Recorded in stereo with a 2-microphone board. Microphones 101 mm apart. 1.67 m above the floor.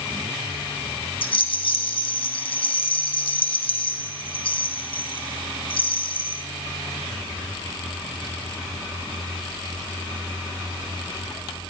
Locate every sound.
1.2 s a rattle: 60° left (ahead or behind), 1.6 m